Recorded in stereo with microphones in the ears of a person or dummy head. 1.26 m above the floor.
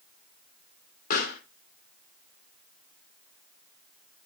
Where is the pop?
50° left (ahead or behind), 2 m.